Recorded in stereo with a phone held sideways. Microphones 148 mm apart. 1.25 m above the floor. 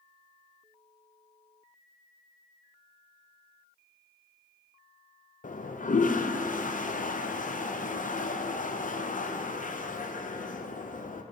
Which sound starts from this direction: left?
A toilet flushing, at 5.4 s.